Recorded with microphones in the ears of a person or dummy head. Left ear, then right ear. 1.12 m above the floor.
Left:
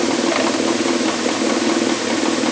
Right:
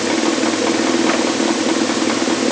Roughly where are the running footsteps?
I don't hear running footsteps.